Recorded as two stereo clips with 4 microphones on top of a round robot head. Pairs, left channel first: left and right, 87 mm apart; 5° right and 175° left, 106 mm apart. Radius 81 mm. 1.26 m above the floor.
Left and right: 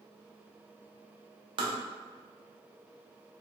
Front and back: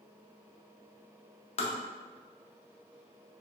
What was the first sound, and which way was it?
Tapping, 45° right.